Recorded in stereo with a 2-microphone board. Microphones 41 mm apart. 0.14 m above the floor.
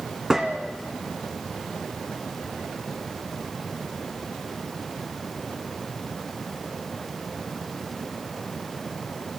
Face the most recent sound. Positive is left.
turn(degrees=-10)  # may be behind; listen again after turning